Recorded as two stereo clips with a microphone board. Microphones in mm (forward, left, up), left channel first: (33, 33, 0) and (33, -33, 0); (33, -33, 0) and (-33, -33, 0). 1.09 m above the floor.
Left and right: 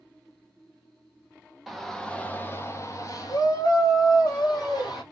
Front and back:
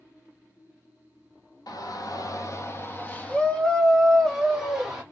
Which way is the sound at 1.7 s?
Straight ahead.